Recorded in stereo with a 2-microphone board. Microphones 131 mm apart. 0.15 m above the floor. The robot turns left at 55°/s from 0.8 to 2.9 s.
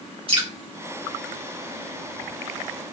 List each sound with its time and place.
0.3 s dripping: 45° right (ahead or behind), 2.5 m